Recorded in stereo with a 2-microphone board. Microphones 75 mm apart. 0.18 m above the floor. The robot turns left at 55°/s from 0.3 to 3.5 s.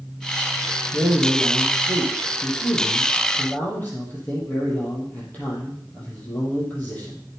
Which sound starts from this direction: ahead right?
A man speaking, at 0.9 s.